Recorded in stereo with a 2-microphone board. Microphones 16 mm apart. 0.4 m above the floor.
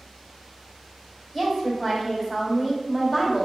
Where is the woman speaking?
Centre (ahead or behind), 1.5 m.